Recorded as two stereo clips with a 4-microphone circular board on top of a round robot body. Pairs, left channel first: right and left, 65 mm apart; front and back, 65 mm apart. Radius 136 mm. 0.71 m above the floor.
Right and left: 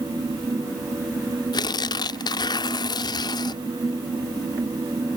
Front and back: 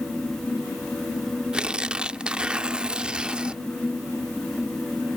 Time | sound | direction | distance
1.5 | tearing paper | 105° right | ?